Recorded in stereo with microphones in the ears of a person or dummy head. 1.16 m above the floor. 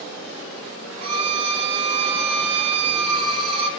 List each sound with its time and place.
1.0 s a violin: 30° right (ahead or behind), 0.9 m